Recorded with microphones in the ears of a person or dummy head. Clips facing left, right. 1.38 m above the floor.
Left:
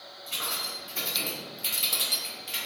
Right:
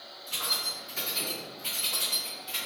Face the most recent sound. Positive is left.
turn(degrees=30)  # may be behind; listen again after turning